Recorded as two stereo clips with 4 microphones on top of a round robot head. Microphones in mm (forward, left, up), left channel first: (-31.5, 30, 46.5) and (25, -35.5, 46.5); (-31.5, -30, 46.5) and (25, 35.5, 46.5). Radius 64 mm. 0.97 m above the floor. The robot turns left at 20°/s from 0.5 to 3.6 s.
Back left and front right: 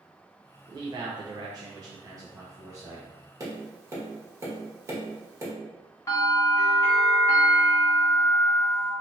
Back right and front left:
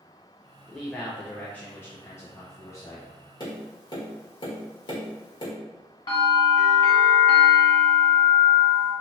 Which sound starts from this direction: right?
Tapping, at 3.4 s.